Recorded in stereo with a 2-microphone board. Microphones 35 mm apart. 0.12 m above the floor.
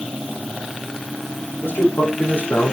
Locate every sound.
1.6 s a man speaking: 75° left (ahead or behind), 7 m